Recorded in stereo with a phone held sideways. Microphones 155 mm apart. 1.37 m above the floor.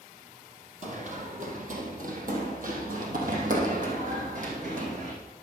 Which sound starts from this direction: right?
Running footsteps, at 0.8 s.